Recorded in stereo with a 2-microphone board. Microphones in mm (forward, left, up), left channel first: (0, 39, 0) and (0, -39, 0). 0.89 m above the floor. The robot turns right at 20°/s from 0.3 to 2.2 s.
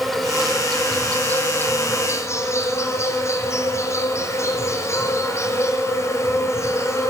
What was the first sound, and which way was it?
An insect, straight ahead.